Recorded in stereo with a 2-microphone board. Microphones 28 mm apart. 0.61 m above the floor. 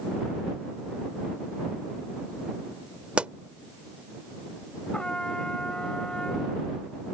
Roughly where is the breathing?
I don't hear breathing.